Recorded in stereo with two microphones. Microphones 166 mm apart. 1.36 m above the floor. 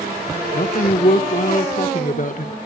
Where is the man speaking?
55° left (ahead or behind), 1.3 m.